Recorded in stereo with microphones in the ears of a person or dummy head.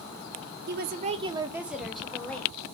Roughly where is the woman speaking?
Right.